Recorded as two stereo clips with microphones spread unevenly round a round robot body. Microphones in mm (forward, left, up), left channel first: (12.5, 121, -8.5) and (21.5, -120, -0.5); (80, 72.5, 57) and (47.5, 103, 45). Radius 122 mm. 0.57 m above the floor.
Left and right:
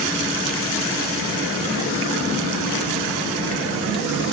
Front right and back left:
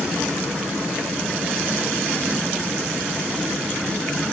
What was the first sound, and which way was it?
Only background noise.